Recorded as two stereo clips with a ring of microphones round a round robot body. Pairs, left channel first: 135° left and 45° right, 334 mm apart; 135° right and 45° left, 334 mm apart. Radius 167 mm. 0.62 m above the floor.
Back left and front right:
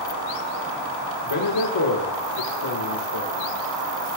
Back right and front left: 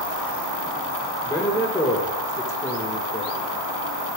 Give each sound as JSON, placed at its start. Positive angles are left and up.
{"t": 1.2, "sound": "a man speaking", "azimuth_deg": 145, "distance_m": 1.5}